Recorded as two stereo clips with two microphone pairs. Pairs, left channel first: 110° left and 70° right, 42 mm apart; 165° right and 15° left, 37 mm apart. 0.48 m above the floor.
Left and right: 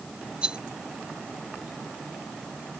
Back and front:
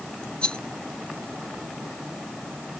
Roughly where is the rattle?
Behind right.